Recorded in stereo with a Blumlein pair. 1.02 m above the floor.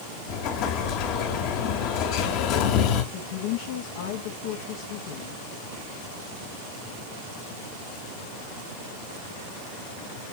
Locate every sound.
0.3 s an explosion: 40° left, 1.8 m
3.1 s a woman speaking: 55° left, 1.4 m